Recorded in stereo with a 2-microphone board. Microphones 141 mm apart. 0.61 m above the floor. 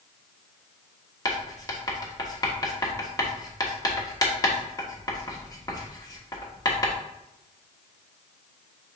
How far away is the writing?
About 1.0 m.